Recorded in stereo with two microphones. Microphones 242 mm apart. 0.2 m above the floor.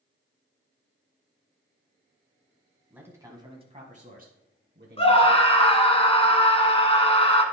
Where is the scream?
25° left (ahead or behind), 1.7 m.